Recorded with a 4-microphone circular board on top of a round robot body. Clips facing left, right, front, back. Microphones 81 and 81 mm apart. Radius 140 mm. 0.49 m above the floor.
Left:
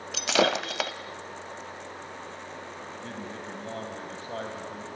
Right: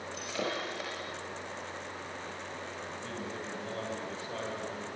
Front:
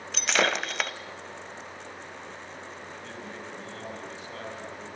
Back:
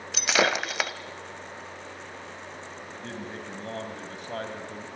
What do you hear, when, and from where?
0.1 s breaking glass: 95° left, 1.0 m
2.9 s a man speaking: 140° left, 3 m